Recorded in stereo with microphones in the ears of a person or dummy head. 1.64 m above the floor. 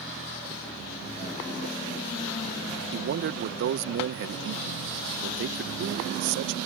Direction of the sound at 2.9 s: 50° right (ahead or behind).